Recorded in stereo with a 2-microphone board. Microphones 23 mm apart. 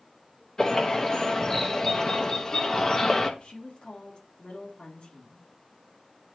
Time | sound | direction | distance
0.6 | a bird | 25° left (ahead or behind) | 1.0 m
3.4 | a woman speaking | 50° left (ahead or behind) | 2.5 m